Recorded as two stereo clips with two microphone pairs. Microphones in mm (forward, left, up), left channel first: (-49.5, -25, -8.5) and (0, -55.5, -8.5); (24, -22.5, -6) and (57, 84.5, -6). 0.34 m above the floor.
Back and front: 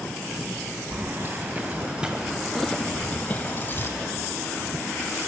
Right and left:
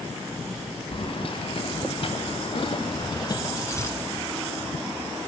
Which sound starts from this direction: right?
Keys jangling, at 0.9 s.